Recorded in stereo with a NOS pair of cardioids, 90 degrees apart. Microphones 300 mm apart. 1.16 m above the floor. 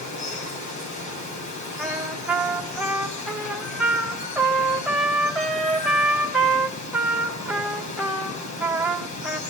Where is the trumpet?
5° right, 2.5 m.